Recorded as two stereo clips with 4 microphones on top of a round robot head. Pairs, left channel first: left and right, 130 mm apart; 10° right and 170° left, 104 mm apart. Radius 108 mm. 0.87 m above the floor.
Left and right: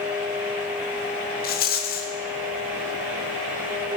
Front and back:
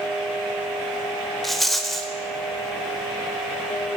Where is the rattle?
75° left, 0.8 m.